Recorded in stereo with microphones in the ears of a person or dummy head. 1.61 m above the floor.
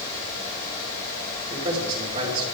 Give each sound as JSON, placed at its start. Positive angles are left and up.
{"t": 1.5, "sound": "a man speaking", "side_deg": -40, "distance_m": 5.0}